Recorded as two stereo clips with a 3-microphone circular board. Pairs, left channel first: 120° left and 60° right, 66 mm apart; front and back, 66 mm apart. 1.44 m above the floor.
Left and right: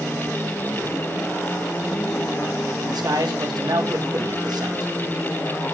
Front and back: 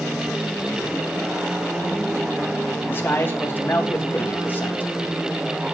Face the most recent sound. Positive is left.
turn(degrees=-60)